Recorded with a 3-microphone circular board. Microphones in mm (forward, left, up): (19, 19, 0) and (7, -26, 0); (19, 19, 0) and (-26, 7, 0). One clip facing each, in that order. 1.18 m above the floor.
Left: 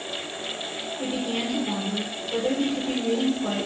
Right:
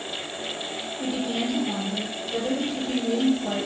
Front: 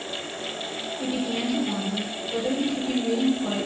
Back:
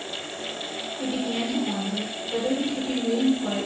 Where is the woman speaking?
120° left, 0.7 m.